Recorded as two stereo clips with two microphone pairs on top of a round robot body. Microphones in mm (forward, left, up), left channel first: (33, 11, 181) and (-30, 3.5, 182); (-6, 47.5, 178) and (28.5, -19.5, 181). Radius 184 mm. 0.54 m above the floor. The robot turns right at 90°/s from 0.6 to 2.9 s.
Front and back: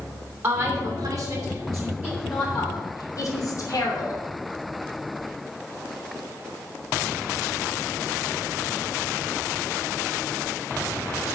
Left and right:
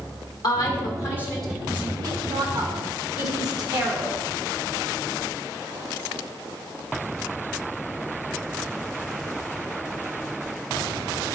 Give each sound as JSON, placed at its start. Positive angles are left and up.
{"t": 0.4, "sound": "a woman speaking", "azimuth_deg": 125, "distance_m": 2.5}